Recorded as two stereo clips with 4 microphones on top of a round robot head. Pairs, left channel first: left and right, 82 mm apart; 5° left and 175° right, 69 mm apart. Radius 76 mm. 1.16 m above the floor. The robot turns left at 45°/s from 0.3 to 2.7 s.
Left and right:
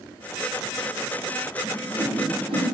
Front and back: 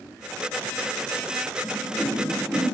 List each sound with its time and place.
1.6 s a whoosh: 55° right, 3 m; by 2.6 s 100° right, 3 m